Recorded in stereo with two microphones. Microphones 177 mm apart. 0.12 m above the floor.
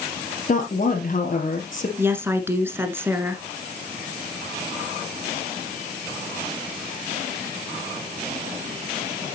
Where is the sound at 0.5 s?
50° left (ahead or behind), 2.5 m.